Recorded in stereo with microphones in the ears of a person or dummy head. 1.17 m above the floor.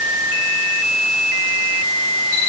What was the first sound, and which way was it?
Only background noise.